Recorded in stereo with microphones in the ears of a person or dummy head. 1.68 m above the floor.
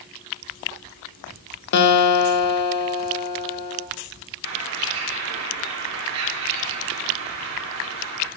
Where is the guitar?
60° left (ahead or behind), 0.9 m.